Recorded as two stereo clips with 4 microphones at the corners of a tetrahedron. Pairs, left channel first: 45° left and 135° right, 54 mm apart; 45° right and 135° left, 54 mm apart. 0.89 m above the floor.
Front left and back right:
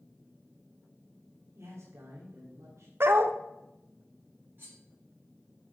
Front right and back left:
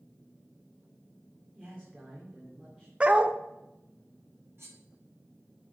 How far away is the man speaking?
About 2 m.